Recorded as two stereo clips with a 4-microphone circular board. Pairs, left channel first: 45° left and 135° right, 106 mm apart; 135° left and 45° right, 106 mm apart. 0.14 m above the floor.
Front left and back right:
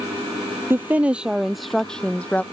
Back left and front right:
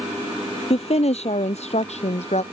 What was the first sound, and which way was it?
A woman speaking, 155° left.